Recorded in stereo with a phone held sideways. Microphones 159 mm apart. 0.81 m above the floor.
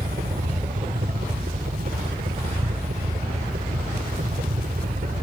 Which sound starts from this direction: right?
A helicopter, at 0.0 s.